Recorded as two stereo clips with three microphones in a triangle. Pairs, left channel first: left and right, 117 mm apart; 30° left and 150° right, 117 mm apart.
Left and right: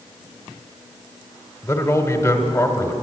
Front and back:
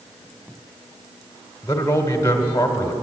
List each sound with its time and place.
1.6 s a man speaking: 60° left, 1.4 m